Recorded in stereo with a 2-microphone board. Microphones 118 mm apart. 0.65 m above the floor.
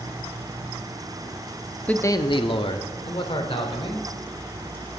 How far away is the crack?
I don't hear a crack.